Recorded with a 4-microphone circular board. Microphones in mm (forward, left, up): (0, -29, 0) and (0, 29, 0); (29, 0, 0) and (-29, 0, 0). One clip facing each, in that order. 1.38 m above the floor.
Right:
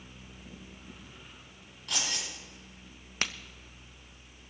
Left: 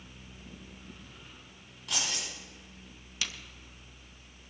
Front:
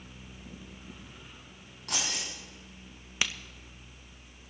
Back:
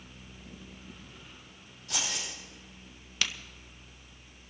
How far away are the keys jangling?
About 7 m.